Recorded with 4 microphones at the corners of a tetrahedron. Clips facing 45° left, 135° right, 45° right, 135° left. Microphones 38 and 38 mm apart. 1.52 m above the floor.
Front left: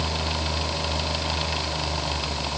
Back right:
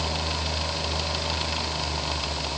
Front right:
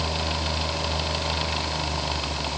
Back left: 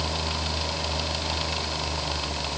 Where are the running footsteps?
No running footsteps in this recording.